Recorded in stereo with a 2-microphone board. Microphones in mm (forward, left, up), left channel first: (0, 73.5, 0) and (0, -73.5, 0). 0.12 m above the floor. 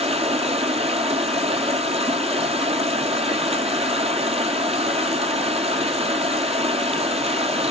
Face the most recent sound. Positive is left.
turn(degrees=-45)  # may be behind; listen again after turning